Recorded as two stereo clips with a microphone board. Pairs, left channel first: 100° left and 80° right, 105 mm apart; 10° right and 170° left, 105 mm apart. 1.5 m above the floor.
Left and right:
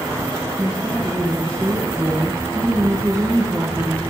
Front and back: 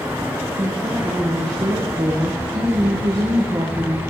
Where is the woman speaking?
145° right, 1.1 m.